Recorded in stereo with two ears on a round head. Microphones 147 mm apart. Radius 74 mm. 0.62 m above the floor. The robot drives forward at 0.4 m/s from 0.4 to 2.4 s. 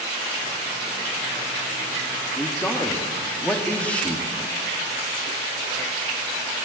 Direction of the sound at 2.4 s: 10° left (ahead or behind).